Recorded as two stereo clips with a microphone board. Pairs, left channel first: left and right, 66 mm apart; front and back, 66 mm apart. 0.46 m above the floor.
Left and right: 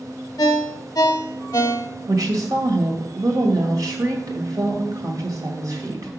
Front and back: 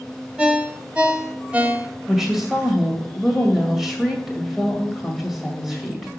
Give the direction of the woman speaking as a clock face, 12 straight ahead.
3 o'clock.